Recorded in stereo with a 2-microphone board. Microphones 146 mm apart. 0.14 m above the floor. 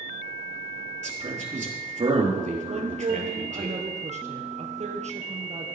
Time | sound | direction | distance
1.0 | a man speaking | 50° right (ahead or behind) | 3.5 m
2.7 | a woman speaking | 50° right (ahead or behind) | 2.5 m